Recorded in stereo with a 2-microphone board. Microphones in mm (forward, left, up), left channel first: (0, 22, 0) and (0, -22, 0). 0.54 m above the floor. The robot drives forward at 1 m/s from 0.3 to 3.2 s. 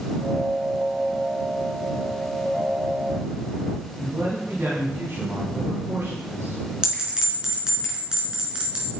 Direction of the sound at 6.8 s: 20° right (ahead or behind).